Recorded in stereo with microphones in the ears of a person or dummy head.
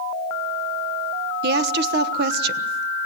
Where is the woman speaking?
65° right (ahead or behind), 1.1 m.